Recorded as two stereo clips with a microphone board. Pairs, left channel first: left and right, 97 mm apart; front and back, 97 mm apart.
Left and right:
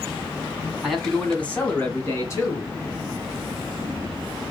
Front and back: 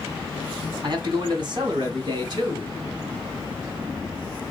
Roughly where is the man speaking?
Behind.